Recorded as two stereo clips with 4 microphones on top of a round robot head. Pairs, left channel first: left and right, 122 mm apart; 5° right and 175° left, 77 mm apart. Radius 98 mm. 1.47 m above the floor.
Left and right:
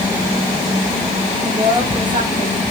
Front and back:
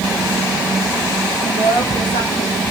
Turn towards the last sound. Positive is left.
turn(degrees=-30)